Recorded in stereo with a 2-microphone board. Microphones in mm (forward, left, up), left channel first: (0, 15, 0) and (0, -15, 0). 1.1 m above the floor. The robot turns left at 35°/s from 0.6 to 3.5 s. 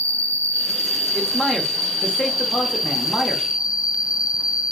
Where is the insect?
90° left, 0.8 m; by 4.7 s 15° right, 0.8 m.